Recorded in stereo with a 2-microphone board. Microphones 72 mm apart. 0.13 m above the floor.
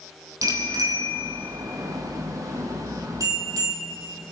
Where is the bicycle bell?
50° right (ahead or behind), 3 m.